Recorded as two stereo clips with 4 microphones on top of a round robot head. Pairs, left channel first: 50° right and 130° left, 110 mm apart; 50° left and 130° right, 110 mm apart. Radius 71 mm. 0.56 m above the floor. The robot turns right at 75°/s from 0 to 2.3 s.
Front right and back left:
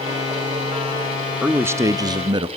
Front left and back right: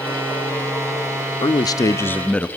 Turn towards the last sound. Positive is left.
turn(degrees=125)